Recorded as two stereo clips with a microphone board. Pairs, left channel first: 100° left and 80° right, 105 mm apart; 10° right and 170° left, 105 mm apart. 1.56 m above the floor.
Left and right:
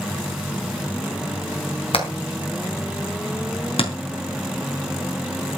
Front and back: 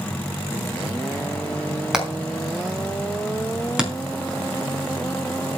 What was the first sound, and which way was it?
Hammering, 85° left.